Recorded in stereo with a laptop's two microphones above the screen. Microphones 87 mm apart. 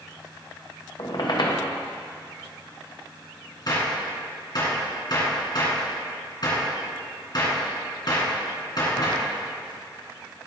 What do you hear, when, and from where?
1.0 s a squeak: 60° left (ahead or behind), 0.9 m
3.7 s a gunshot: 55° left (ahead or behind), 2 m